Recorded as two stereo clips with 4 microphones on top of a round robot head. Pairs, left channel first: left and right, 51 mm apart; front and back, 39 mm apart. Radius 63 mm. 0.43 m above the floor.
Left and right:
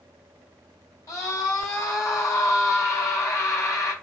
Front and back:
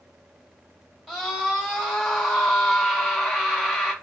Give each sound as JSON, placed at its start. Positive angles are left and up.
{"t": 1.1, "sound": "a scream", "azimuth_deg": 85, "distance_m": 2.5}